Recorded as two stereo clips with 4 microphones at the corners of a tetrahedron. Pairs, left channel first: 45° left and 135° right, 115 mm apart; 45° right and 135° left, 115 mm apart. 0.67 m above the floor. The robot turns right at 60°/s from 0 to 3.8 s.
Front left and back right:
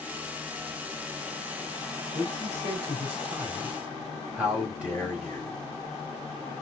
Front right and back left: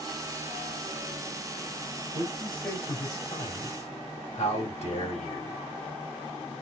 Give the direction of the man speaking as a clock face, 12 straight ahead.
5 o'clock.